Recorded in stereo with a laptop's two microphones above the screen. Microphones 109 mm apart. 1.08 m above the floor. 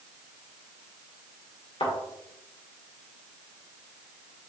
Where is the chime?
No chime in this recording.